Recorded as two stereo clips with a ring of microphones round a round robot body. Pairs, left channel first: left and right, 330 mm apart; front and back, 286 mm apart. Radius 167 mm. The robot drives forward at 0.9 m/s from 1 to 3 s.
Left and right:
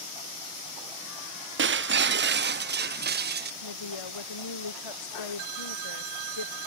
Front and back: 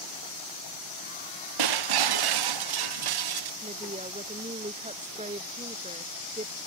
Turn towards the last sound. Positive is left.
turn(degrees=110)